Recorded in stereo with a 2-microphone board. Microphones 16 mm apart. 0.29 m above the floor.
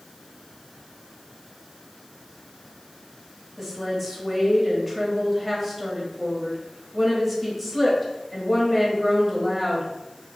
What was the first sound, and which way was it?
A woman speaking, 10° right (ahead or behind).